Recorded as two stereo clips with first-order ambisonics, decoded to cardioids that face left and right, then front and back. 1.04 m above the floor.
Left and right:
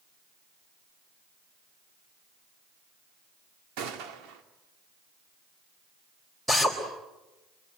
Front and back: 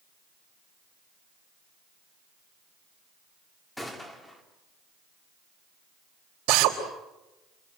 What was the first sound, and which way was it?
A gunshot, 85° right.